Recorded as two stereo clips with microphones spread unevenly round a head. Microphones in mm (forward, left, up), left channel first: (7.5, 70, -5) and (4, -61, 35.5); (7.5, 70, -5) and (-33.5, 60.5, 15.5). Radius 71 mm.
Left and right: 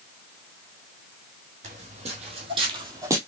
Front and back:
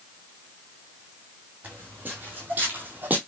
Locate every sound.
1.6 s footsteps: 115° right, 2.5 m; by 3.2 s 150° right, 1.8 m